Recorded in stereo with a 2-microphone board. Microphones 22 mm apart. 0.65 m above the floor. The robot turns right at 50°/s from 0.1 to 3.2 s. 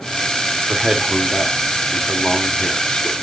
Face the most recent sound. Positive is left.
turn(degrees=90)